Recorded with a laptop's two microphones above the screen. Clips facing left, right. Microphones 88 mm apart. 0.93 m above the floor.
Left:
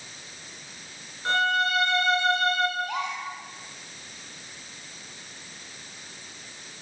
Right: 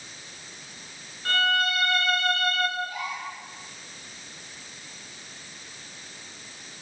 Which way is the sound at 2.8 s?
85° left.